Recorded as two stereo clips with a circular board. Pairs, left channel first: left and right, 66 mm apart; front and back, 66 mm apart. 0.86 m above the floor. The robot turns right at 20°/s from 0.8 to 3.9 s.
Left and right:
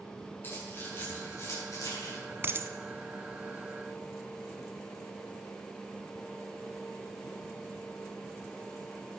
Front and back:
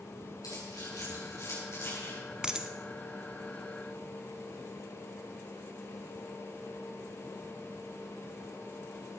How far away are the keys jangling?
About 7 m.